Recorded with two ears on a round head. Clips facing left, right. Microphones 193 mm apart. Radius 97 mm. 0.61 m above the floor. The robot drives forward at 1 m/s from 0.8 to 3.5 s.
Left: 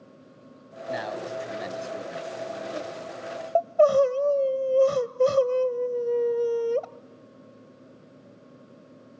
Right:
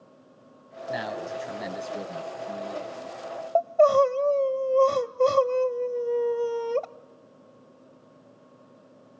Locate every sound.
0.9 s a man speaking: centre (ahead or behind), 3 m
3.5 s crying: 5° left (ahead or behind), 0.8 m